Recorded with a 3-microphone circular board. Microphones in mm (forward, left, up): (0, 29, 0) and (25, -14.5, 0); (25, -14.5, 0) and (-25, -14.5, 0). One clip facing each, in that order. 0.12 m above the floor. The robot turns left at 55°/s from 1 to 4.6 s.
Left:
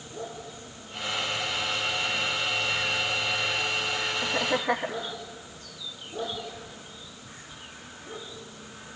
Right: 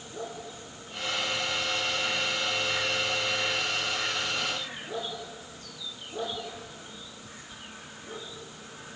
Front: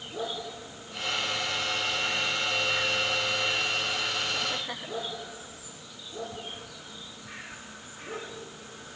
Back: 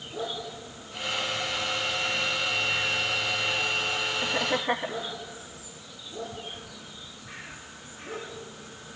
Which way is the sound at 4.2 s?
150° left.